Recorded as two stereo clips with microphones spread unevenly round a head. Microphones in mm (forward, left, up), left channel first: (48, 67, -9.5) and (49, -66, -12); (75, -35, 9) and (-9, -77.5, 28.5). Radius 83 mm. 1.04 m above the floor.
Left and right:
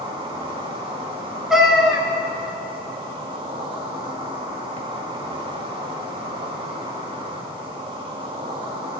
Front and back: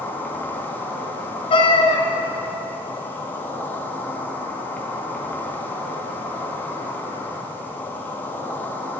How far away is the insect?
About 2 m.